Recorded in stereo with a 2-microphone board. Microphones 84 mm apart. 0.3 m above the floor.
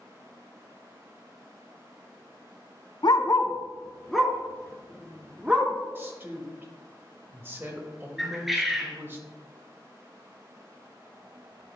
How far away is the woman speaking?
About 1.3 m.